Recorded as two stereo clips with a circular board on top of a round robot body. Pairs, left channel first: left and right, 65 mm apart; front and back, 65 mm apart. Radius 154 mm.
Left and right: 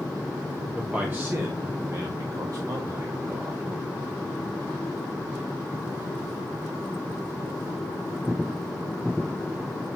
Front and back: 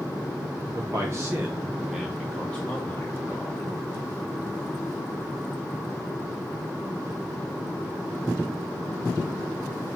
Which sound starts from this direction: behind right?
A man speaking, at 0.8 s.